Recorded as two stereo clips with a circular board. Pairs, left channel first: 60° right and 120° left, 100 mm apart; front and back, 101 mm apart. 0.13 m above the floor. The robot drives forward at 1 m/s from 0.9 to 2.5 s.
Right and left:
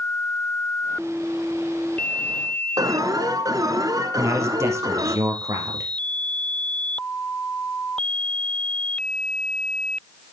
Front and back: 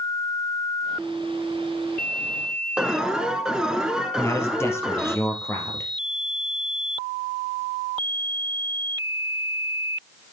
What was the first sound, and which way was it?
An alarm, 100° left.